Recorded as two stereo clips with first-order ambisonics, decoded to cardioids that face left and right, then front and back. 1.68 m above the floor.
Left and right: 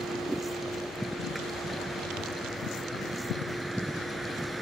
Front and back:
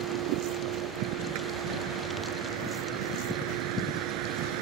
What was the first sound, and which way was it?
A vehicle, 175° right.